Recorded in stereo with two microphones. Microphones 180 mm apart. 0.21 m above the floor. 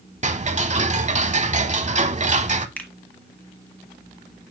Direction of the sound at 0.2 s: 40° right (ahead or behind).